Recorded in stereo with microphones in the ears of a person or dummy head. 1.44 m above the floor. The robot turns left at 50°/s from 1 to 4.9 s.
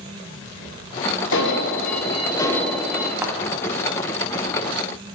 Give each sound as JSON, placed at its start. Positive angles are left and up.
{"t": 1.3, "sound": "an alarm", "azimuth_deg": 75, "distance_m": 1.0}
{"t": 3.2, "sound": "a thud", "side_deg": -10, "distance_m": 0.8}